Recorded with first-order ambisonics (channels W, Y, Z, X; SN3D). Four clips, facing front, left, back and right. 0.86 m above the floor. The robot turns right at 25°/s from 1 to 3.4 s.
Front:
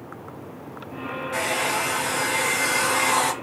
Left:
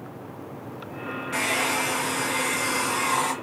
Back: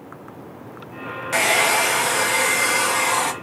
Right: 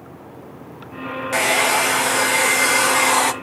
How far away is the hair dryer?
About 0.6 m.